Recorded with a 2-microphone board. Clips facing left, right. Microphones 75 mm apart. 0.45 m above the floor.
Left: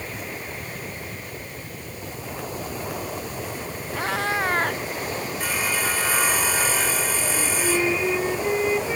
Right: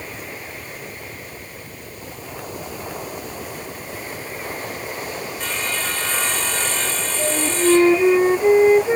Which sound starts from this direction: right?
A flute, at 7.2 s.